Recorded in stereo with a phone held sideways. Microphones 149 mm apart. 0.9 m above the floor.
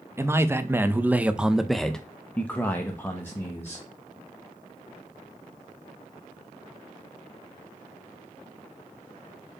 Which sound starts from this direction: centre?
A man speaking, at 0.2 s.